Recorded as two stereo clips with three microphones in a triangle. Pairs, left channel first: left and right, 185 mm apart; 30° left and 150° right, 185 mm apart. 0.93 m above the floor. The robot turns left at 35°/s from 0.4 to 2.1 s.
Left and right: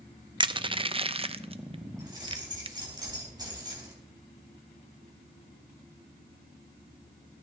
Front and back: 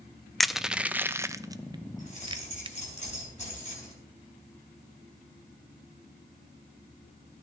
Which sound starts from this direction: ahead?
Keys jangling, at 2.0 s.